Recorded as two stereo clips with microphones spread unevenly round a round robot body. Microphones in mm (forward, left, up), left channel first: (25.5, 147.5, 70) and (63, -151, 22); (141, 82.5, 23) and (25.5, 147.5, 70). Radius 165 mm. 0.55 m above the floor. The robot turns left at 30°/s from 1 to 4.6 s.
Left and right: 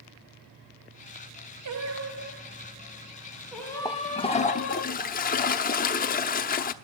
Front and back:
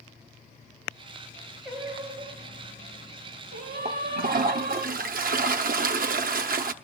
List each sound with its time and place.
1.6 s singing: 120° right, 2 m; by 4.8 s 155° left, 2 m
3.9 s a toilet flushing: 175° right, 0.9 m; by 6.7 s 160° left, 0.9 m